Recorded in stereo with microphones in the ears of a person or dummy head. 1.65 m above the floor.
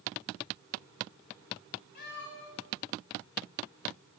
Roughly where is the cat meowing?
Left.